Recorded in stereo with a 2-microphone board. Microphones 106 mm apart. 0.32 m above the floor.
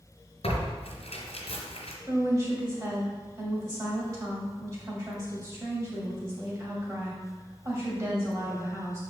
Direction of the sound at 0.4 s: 75° left (ahead or behind).